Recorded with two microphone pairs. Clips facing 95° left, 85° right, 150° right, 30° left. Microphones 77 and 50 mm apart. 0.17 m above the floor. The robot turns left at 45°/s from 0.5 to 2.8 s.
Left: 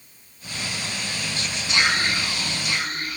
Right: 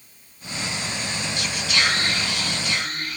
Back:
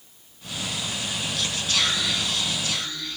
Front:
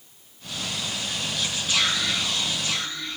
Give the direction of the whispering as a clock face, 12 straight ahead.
9 o'clock.